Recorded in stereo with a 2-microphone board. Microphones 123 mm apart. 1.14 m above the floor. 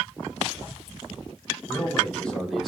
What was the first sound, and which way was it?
A man speaking, 15° left (ahead or behind).